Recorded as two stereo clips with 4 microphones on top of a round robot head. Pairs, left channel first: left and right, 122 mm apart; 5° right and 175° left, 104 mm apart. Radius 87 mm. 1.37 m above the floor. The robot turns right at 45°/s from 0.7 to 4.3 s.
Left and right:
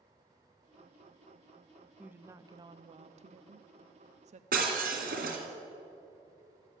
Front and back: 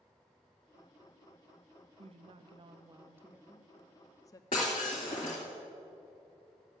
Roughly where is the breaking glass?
Ahead right.